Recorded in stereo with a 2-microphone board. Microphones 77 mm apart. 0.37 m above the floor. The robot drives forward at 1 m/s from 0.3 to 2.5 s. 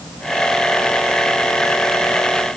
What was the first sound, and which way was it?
Only background noise.